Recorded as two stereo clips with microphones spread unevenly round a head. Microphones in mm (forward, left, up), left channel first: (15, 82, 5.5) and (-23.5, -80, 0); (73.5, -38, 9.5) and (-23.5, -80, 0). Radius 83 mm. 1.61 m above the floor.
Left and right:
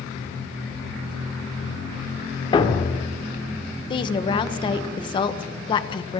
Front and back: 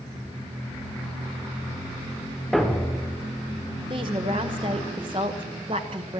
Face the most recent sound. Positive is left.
turn(degrees=140)